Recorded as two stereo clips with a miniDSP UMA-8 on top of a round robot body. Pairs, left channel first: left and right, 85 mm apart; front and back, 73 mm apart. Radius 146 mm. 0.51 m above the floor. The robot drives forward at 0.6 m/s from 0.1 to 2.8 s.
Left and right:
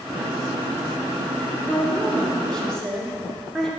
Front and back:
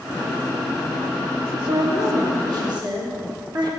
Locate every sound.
1.7 s a woman speaking: 165° left, 1.3 m; by 3.7 s 170° left, 1.8 m